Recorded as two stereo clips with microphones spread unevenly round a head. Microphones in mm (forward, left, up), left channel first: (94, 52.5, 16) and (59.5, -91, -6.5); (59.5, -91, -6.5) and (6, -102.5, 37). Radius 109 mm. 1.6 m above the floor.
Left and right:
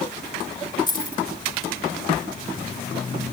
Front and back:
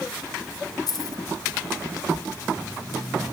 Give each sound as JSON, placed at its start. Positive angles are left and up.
{"t": 0.9, "sound": "keys jangling", "azimuth_deg": 20, "distance_m": 5.0}